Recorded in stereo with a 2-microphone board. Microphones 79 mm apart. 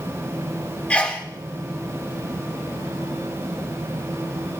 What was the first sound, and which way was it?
A sneeze, 15° left (ahead or behind).